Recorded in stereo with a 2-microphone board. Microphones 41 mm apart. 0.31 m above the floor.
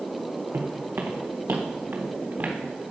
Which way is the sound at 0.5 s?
80° right.